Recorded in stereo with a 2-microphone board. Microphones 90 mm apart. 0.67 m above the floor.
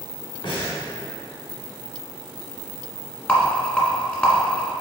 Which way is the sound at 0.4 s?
75° left (ahead or behind).